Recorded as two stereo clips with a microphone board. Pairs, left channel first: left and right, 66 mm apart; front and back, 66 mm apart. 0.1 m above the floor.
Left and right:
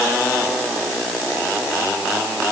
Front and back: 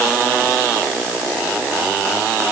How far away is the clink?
No clink in this recording.